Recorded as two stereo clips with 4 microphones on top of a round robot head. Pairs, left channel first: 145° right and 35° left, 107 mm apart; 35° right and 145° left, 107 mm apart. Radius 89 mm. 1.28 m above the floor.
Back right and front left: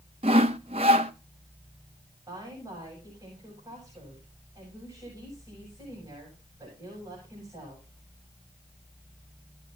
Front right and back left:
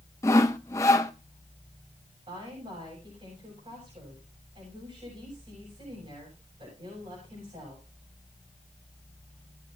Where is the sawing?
20° left, 0.5 m.